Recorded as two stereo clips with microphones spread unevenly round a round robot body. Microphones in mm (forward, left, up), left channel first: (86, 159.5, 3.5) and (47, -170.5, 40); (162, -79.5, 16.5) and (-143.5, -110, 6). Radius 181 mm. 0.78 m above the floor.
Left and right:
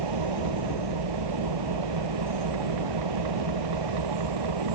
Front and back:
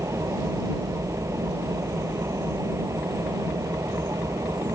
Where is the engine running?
95° right.